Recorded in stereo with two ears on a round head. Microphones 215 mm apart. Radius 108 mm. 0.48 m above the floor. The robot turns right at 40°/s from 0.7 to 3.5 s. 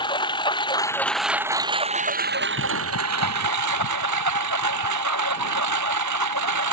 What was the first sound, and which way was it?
A lawn mower, 160° left.